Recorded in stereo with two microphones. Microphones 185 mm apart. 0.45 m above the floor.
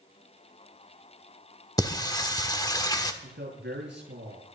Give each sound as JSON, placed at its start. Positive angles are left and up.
{"t": 1.8, "sound": "singing", "side_deg": 20, "distance_m": 1.3}
{"t": 3.2, "sound": "a man speaking", "side_deg": -75, "distance_m": 6.5}